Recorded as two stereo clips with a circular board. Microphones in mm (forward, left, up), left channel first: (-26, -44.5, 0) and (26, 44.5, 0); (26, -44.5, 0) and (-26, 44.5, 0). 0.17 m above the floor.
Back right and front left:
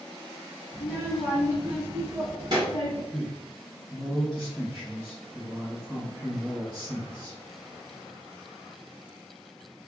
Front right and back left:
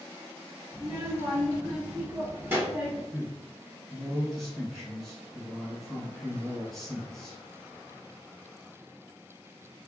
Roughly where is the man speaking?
Ahead left.